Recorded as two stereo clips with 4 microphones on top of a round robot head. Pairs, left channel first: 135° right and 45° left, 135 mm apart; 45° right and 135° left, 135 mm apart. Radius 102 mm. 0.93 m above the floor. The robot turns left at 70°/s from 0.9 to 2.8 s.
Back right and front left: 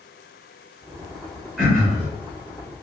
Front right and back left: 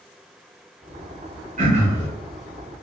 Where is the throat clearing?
130° left, 1.1 m; by 2.1 s 95° left, 1.1 m.